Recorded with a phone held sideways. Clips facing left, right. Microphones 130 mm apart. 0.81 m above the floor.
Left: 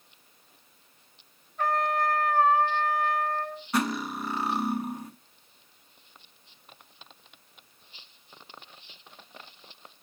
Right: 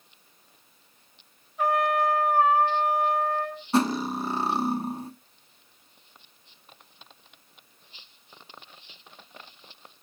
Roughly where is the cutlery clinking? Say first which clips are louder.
Right 5 dB; right.